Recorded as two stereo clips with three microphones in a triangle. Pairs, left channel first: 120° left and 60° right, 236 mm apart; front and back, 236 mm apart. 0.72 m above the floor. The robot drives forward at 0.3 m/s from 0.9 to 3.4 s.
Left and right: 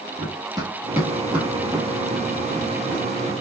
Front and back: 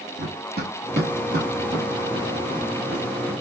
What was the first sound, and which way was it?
Running footsteps, 130° right.